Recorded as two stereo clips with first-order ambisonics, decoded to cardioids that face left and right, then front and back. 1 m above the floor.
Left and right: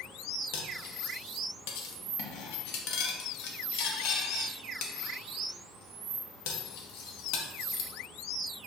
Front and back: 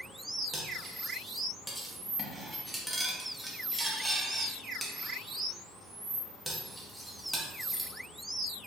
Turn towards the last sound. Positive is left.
turn(degrees=90)